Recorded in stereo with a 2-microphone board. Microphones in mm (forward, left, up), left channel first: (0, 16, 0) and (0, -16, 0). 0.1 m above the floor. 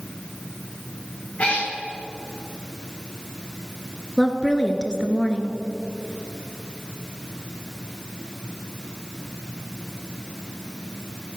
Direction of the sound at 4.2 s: 25° left (ahead or behind).